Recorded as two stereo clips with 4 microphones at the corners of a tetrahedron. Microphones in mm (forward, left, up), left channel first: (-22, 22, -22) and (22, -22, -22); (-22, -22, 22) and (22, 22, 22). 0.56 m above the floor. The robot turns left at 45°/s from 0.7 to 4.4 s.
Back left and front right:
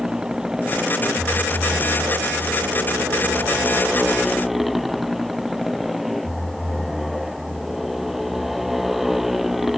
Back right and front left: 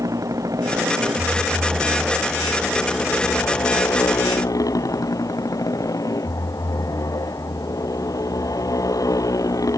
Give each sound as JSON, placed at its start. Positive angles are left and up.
{"t": 0.0, "sound": "a motorcycle", "azimuth_deg": 35}